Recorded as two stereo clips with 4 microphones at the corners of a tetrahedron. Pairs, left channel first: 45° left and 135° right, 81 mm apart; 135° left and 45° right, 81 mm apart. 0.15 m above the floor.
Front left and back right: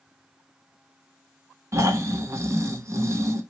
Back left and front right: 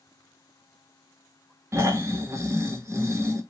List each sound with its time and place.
1.7 s snoring: 90° right, 0.5 m